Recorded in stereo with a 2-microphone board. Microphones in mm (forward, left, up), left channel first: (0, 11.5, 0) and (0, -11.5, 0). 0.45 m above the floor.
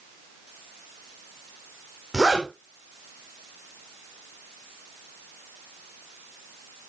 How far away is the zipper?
About 6.5 m.